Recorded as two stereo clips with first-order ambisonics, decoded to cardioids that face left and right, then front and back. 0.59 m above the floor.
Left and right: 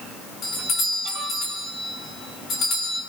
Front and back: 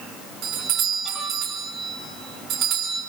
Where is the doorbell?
145° left, 6 m.